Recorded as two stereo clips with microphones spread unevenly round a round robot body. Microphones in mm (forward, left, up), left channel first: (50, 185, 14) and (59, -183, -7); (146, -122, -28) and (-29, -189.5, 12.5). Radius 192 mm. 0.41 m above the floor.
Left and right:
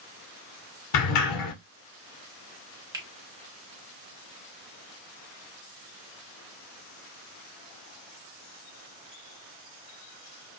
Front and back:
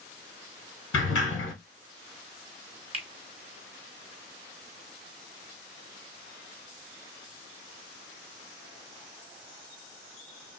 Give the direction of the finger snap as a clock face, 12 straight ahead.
4 o'clock.